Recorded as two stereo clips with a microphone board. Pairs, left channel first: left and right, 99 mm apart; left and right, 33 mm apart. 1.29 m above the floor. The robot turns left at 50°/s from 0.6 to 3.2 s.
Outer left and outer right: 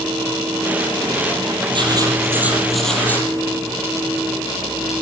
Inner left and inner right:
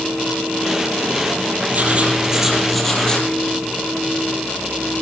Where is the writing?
130° right, 6 m; by 3.3 s 160° left, 6 m.